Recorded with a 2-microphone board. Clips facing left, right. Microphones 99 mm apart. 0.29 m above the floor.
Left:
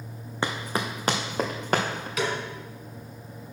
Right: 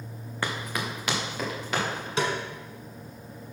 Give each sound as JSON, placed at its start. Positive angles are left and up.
{"t": 0.4, "sound": "running footsteps", "side_deg": 25, "distance_m": 1.2}
{"t": 2.2, "sound": "a snare drum", "side_deg": -30, "distance_m": 1.6}